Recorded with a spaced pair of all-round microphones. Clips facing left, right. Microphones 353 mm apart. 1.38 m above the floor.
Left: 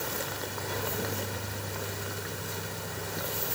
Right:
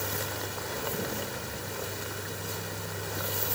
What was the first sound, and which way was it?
Only background noise.